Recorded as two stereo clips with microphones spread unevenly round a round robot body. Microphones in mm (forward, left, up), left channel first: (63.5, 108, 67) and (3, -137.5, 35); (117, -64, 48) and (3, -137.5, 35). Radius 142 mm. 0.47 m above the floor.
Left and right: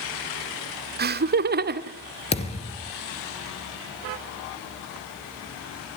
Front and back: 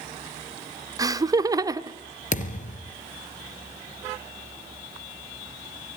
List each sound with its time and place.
1.0 s laughter: 100° right, 1.4 m
2.3 s a thud: 10° left, 2.5 m